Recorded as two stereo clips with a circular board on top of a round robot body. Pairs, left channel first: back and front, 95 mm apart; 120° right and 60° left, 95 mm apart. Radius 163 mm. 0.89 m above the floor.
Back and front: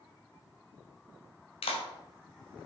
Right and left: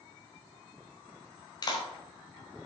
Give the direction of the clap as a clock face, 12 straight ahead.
6 o'clock.